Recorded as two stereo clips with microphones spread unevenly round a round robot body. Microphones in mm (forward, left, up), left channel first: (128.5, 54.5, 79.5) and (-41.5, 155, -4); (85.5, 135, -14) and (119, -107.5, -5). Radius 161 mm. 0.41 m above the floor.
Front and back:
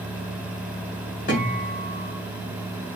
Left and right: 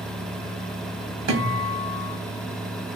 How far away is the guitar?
About 1.5 m.